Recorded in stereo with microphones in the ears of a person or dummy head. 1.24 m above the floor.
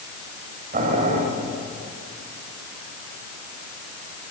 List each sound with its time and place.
0.7 s boiling: 40° right (ahead or behind), 6.5 m